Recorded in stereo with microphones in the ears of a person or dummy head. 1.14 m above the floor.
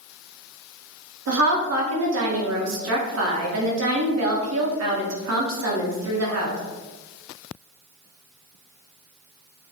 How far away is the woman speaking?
About 0.7 m.